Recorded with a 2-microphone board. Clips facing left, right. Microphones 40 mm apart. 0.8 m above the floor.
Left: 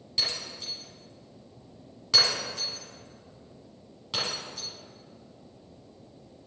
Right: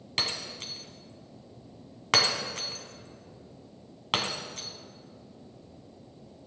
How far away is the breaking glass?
About 1.9 m.